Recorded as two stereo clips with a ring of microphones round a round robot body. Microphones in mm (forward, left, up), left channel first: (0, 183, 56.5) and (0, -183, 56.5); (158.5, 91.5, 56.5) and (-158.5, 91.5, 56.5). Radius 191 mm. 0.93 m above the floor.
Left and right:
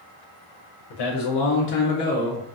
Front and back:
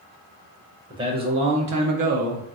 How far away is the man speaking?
About 0.7 m.